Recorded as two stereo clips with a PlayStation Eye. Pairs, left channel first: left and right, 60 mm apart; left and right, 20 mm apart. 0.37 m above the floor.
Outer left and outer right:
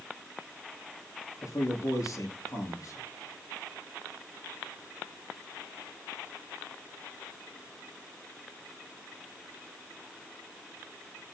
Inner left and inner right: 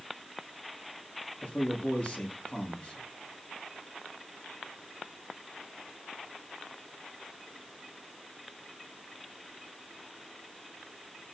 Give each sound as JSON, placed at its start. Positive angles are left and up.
{"t": 1.4, "sound": "a man speaking", "side_deg": 70, "distance_m": 9.0}